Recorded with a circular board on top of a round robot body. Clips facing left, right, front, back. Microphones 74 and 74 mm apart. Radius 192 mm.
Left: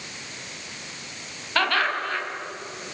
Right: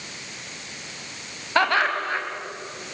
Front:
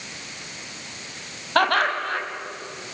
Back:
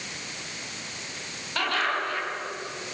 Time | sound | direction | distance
1.6 | laughter | 20° right | 5 m